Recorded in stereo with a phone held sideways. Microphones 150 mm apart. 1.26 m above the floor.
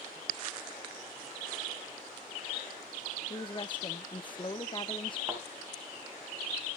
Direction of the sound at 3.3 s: 35° left (ahead or behind).